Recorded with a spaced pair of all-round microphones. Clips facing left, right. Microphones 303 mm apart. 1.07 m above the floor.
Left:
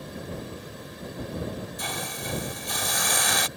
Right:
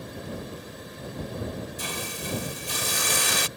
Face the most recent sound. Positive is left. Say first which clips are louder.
# even
turn(degrees=-35)  # may be behind; listen again after turning